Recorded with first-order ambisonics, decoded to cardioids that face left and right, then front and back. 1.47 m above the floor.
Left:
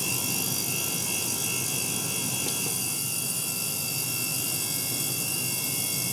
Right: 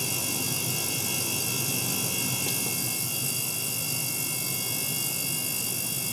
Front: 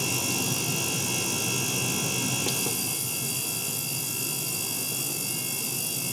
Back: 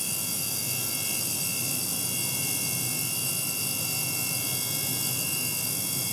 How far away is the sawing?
I don't hear sawing.